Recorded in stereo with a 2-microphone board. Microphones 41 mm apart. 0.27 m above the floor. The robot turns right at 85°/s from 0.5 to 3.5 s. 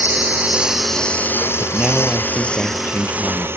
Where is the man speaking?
45° right; by 3.5 s 110° left.